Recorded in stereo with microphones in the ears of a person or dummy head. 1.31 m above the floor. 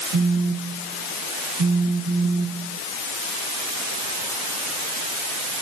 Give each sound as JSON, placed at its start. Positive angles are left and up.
{"t": 0.1, "sound": "a phone buzzing", "side_deg": -65, "distance_m": 4.0}